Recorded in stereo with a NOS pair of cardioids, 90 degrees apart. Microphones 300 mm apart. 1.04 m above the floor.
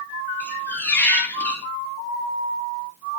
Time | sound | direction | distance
0.4 | a squeak | 5° left | 0.6 m